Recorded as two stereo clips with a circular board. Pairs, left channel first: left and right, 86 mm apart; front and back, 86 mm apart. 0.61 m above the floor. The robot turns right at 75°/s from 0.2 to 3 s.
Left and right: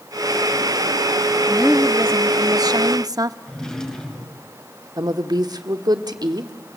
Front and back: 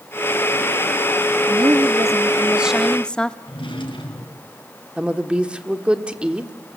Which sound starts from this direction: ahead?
A drawer, at 3.5 s.